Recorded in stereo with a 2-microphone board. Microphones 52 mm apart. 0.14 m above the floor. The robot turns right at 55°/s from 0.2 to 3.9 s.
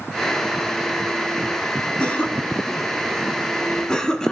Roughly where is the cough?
Left.